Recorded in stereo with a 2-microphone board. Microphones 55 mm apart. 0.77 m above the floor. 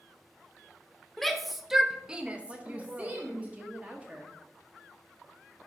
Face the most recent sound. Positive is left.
turn(degrees=-25)  # may be behind; listen again after turning